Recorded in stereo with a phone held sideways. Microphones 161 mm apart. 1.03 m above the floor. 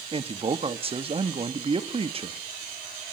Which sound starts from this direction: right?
A man speaking, at 0.1 s.